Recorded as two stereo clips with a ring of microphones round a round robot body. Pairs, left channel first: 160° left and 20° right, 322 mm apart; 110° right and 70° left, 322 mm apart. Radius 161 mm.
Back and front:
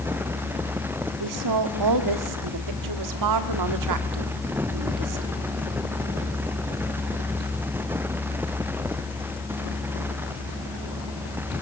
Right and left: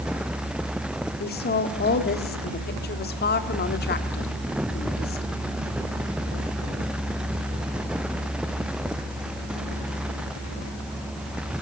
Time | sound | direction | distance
1.2 | a woman speaking | 50° right | 1.8 m